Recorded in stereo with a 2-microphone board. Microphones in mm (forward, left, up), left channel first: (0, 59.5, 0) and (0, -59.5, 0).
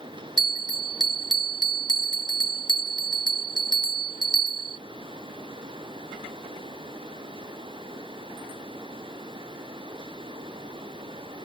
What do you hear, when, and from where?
0.4 s a bell: 40° right (ahead or behind)